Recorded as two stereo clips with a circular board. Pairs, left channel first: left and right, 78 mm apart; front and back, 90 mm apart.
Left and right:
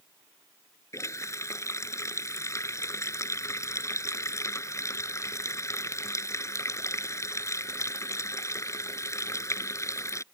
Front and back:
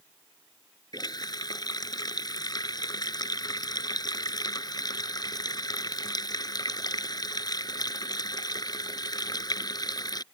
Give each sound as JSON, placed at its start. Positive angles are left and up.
{"t": 0.9, "sound": "a running tap", "azimuth_deg": 40}